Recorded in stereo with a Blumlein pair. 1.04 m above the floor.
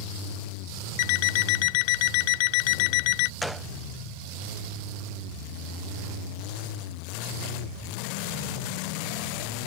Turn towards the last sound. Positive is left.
turn(degrees=0)